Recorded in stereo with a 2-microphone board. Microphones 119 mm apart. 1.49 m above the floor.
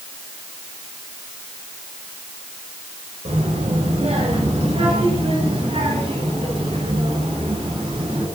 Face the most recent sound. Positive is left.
turn(degrees=-55)  # may be behind; listen again after turning